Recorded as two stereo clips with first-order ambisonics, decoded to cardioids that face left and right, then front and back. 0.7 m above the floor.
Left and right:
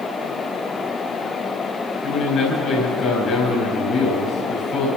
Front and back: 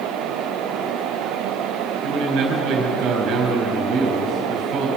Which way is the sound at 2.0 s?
145° left.